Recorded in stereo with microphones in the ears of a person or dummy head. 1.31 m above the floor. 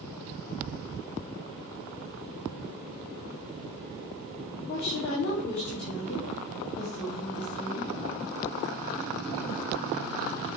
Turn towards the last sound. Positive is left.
turn(degrees=70)  # may be behind; listen again after turning